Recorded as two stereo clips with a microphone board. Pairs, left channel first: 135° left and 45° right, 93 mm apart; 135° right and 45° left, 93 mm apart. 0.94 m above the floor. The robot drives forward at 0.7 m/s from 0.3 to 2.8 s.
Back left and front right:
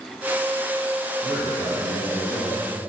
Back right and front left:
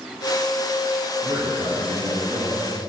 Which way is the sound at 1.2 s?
75° left.